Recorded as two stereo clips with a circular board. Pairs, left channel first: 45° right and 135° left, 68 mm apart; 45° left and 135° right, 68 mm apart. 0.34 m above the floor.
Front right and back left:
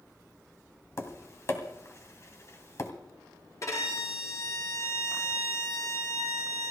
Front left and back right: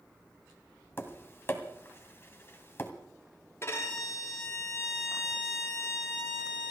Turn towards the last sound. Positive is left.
turn(degrees=-5)